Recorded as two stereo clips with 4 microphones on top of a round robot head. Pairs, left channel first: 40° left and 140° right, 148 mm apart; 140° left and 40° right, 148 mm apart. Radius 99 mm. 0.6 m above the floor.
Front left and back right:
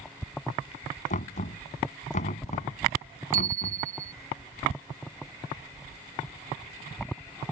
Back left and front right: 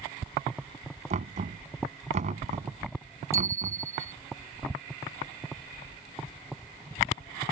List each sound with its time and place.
1.1 s knocking: straight ahead
3.3 s a bicycle bell: 110° right